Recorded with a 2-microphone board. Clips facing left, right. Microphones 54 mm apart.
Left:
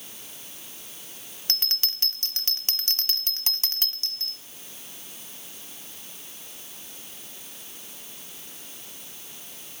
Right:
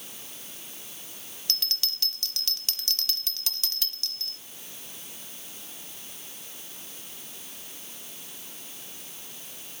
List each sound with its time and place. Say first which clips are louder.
1.5 s a bell: left 2 dB; 35° left (ahead or behind), 1.1 m